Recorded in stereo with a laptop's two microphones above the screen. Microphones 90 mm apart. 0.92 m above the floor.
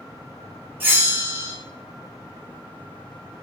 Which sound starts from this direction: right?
A bell, at 0.8 s.